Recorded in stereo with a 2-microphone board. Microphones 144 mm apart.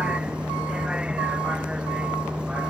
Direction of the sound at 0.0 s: 5° right (ahead or behind).